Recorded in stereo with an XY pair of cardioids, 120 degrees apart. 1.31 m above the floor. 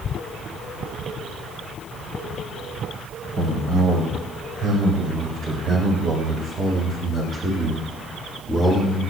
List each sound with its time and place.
3.4 s a man speaking: 65° right, 4 m; by 9.1 s straight ahead, 1.8 m